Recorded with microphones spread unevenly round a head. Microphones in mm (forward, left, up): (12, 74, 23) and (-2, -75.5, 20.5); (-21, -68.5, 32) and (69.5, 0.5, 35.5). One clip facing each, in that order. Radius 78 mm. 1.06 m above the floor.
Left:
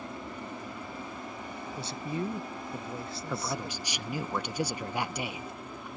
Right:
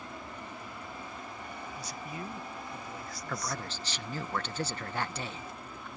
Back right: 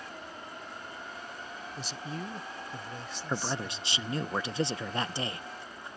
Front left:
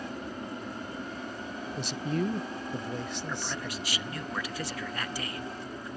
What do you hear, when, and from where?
0.0 s an aircraft: 20° left; by 6.0 s 15° left
1.8 s a man speaking: 25° left
3.3 s a man speaking: 160° left